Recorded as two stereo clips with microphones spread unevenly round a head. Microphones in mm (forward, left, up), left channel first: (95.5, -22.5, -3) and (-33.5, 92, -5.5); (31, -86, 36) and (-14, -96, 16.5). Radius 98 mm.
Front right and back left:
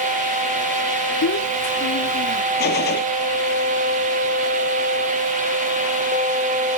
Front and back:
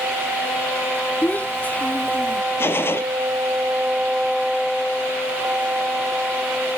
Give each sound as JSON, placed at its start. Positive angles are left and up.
{"t": 1.2, "sound": "a child speaking", "azimuth_deg": -35}
{"t": 2.6, "sound": "a gunshot", "azimuth_deg": -15}